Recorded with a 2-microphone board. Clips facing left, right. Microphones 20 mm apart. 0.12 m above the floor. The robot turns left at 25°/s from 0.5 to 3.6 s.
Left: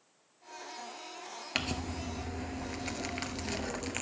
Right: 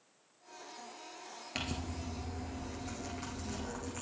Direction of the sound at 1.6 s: 145° left.